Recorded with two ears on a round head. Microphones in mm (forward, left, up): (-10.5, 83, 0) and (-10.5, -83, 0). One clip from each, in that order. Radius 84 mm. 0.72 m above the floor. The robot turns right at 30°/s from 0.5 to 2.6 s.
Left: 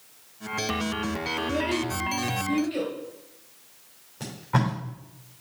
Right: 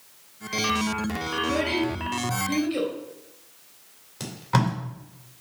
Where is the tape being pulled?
65° right (ahead or behind), 3 m.